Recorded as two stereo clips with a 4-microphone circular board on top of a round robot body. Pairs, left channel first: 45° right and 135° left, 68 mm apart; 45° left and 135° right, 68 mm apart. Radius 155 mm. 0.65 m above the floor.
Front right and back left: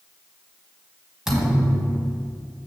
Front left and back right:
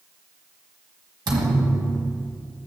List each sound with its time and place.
1.3 s a thud: 140° right, 1.4 m